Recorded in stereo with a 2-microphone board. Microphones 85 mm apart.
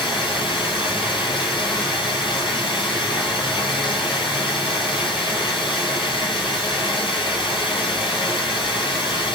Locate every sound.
0.0 s running water: 75° left (ahead or behind), 2.0 m